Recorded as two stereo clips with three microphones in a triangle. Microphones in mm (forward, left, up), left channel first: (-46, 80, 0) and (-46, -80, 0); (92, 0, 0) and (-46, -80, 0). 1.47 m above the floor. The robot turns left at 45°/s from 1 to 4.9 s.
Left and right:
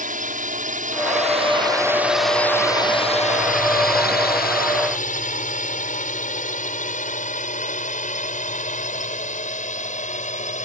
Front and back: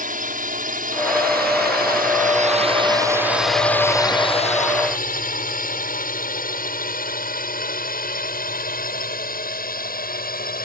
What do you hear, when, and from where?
0.0 s a drone: 120° right; by 10.7 s 50° left